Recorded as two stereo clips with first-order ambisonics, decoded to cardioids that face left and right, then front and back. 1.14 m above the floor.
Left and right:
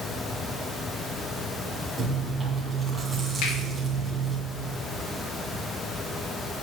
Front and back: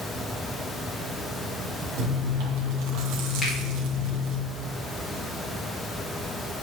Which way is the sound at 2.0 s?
170° right.